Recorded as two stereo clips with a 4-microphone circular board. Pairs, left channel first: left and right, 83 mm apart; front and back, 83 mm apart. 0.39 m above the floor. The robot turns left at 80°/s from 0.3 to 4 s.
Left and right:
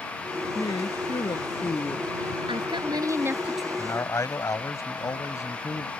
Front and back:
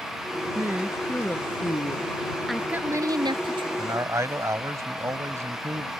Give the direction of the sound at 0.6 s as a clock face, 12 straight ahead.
8 o'clock.